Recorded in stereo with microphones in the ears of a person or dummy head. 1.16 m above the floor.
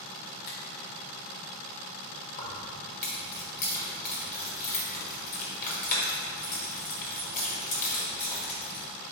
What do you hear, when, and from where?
0.5 s a finger snap: 50° left (ahead or behind), 0.9 m
2.4 s keys jangling: 50° left (ahead or behind), 1.2 m